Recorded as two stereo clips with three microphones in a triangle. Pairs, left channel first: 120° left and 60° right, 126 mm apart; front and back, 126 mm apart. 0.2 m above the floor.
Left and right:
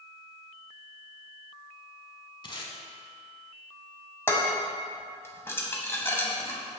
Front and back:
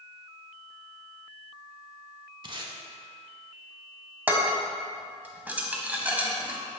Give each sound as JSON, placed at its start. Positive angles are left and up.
{"t": 2.4, "sound": "tape being pulled", "azimuth_deg": 150, "distance_m": 0.8}
{"t": 4.3, "sound": "dishes clattering", "azimuth_deg": 130, "distance_m": 0.9}